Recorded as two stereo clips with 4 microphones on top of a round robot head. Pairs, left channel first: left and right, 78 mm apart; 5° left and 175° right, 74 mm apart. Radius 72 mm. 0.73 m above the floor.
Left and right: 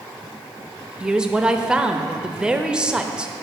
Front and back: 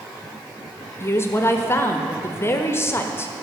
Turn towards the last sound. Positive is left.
turn(degrees=-20)